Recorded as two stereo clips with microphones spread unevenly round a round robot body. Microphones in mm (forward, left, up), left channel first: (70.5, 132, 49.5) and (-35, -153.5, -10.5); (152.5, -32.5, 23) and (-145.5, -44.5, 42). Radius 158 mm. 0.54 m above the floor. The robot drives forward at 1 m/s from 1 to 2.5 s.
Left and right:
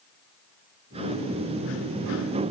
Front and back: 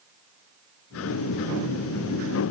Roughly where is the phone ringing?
No phone ringing in this recording.